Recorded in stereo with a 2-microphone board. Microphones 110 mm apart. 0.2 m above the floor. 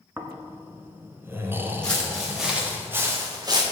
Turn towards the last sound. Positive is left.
turn(degrees=-40)  # may be behind; listen again after turning